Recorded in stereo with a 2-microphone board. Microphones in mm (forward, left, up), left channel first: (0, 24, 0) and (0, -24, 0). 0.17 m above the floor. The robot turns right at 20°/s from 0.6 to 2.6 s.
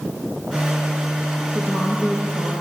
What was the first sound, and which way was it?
A woman speaking, 50° left (ahead or behind).